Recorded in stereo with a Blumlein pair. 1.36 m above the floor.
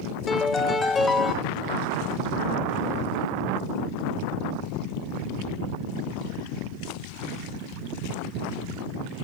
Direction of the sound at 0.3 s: 15° left.